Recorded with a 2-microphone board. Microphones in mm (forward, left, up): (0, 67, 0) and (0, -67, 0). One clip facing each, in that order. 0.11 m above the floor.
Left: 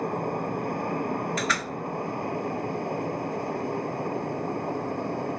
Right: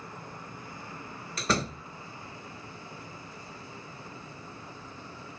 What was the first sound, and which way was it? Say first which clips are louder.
An aircraft: left 16 dB; 60° left (ahead or behind).